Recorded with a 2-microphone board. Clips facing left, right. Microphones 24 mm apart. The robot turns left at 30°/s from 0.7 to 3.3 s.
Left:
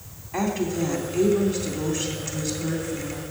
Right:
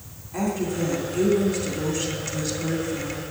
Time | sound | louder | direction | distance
0.3 | a woman speaking | left 1 dB | 55° left | 2.5 m